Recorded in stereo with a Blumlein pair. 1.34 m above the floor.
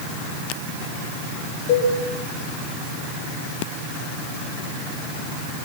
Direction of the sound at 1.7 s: 40° left.